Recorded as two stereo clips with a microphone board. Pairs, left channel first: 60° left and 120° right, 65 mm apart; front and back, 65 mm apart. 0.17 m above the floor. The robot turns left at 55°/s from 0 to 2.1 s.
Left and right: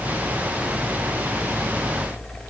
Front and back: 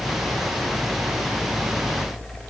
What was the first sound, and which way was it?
Only background noise.